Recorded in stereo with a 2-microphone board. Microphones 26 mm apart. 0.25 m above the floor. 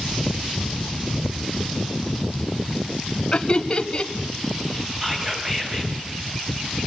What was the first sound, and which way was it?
Laughter, 30° left (ahead or behind).